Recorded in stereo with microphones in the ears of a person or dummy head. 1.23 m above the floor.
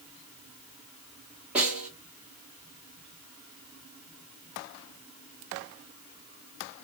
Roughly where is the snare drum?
Centre.